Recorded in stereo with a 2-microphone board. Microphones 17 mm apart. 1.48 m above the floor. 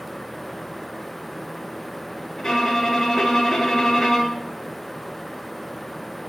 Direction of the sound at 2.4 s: 15° left (ahead or behind).